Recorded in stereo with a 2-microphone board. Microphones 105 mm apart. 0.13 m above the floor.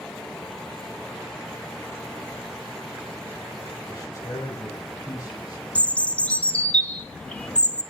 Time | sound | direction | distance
3.9 | a man speaking | 30° left (ahead or behind) | 4.5 m
5.8 | a bird | 10° left (ahead or behind) | 0.8 m